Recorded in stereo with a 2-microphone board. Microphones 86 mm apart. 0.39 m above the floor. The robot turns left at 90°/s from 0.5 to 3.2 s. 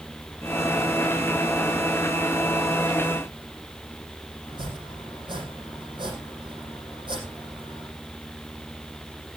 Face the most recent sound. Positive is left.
turn(degrees=-75)  # may be behind; listen again after turning